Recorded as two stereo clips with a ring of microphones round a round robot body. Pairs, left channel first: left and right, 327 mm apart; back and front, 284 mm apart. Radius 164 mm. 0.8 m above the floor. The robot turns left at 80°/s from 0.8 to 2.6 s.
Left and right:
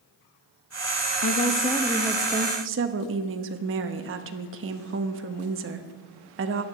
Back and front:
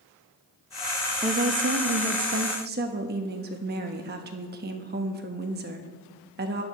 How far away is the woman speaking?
About 1.0 m.